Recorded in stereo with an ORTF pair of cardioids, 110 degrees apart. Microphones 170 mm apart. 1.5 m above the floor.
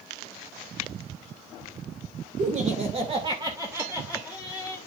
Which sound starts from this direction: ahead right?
Laughter, at 2.4 s.